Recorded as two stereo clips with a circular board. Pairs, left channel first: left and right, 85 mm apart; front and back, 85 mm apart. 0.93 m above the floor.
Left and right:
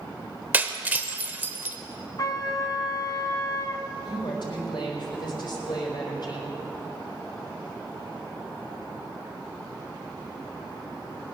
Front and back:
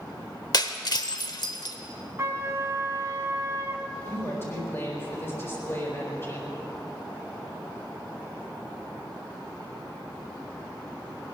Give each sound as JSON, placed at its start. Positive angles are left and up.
{"t": 0.5, "sound": "breaking glass", "azimuth_deg": -25, "distance_m": 1.0}
{"t": 2.2, "sound": "a trumpet", "azimuth_deg": 125, "distance_m": 1.6}
{"t": 4.0, "sound": "a woman speaking", "azimuth_deg": 60, "distance_m": 4.5}